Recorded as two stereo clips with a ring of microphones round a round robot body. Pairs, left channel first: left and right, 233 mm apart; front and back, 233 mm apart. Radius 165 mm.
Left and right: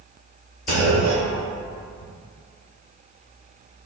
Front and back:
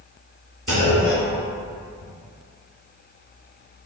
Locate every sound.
0.7 s a clunk: 110° left, 1.2 m